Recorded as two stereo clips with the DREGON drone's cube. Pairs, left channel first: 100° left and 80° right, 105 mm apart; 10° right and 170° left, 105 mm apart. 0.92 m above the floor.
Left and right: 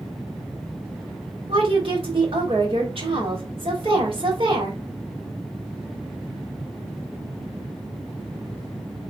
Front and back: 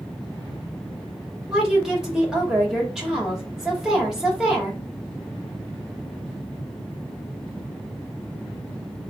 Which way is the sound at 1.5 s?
105° right.